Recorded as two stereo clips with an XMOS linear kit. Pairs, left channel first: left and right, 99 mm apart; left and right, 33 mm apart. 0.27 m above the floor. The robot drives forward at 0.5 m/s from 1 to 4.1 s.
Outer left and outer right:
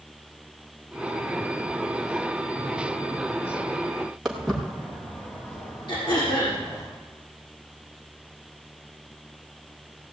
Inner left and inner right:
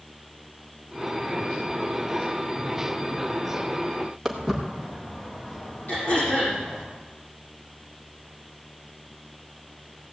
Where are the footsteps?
Centre (ahead or behind), 3 m; by 6.9 s 40° left (ahead or behind), 4 m.